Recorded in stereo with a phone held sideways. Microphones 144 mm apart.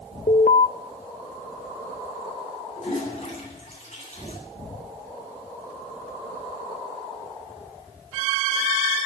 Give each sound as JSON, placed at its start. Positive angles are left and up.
{"t": 0.3, "sound": "an alarm", "side_deg": 65, "distance_m": 0.7}
{"t": 2.8, "sound": "a toilet flushing", "side_deg": 45, "distance_m": 7.0}